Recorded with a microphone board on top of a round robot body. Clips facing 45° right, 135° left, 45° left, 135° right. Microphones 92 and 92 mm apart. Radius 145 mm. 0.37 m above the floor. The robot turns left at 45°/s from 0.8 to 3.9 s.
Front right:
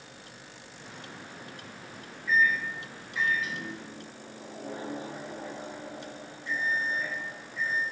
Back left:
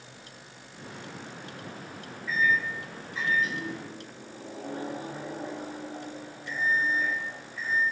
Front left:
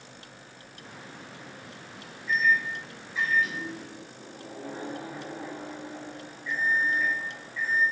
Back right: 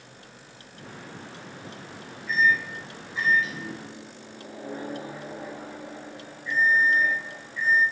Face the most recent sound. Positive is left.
turn(degrees=150)